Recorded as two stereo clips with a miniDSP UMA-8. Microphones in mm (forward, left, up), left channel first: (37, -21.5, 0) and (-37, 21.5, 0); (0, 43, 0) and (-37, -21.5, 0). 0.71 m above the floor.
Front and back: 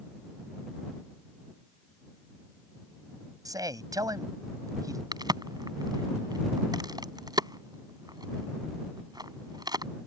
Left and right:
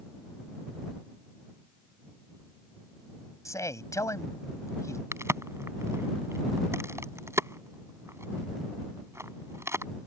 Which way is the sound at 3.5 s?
105° left.